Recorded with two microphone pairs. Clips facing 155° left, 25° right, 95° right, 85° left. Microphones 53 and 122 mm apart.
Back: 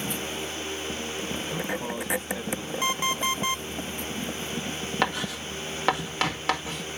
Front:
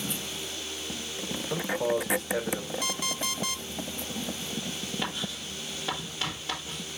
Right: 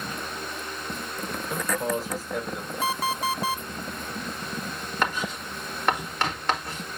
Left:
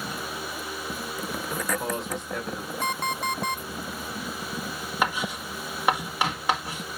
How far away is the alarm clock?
About 0.7 m.